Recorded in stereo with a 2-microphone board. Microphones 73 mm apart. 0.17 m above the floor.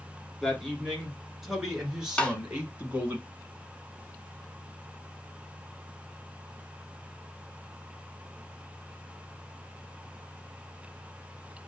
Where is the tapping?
15° left (ahead or behind), 0.8 m.